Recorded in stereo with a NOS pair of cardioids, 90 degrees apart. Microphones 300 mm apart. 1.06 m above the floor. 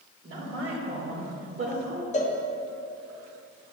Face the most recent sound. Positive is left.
turn(degrees=25)